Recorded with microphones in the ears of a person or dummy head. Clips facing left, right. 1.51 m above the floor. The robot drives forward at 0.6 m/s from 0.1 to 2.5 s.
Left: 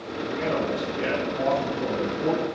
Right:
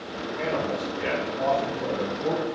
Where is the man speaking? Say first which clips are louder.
Left 1 dB; 70° left (ahead or behind), 1.6 m; by 2.5 s 65° left (ahead or behind), 1.7 m.